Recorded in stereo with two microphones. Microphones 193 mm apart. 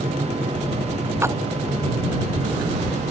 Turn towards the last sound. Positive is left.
turn(degrees=-15)  # may be behind; listen again after turning